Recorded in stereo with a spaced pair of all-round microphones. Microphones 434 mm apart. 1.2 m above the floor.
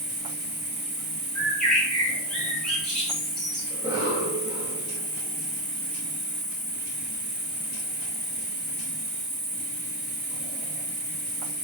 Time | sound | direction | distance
0.0 | an insect | 70° right (ahead or behind) | 1.6 m
1.4 | a bird | centre (ahead or behind) | 1.6 m
3.7 | a cough | 10° right (ahead or behind) | 1.3 m